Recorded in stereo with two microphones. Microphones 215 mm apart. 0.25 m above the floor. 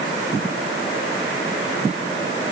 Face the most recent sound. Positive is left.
No sound to turn to.